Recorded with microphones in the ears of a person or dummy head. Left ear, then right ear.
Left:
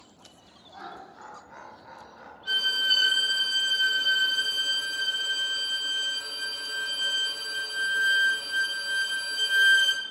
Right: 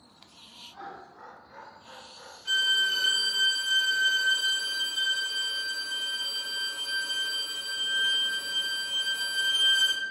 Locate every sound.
0.7 s laughter: 20° left (ahead or behind), 0.6 m
2.5 s a violin: centre (ahead or behind), 0.6 m